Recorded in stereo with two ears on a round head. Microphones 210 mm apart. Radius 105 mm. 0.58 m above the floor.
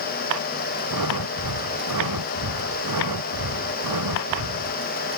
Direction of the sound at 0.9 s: 85° right.